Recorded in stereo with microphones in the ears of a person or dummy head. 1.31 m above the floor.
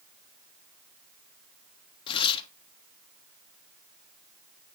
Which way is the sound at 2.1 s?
25° left (ahead or behind).